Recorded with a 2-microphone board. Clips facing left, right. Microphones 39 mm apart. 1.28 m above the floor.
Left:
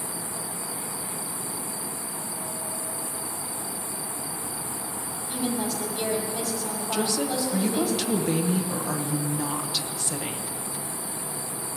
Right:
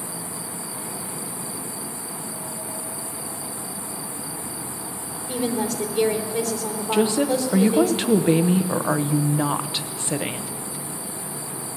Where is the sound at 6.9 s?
30° right (ahead or behind), 0.8 m.